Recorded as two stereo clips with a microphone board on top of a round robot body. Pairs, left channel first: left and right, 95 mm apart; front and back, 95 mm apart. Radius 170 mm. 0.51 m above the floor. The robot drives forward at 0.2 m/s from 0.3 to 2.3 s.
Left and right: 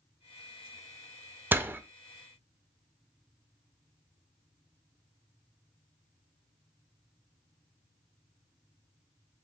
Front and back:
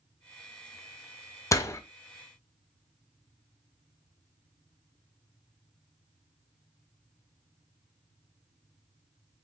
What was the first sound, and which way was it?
A door slam, 30° right.